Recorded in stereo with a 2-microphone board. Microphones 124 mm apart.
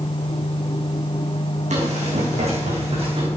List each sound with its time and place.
1.7 s running footsteps: 70° right (ahead or behind), 5 m; by 3.3 s 50° right (ahead or behind), 4.5 m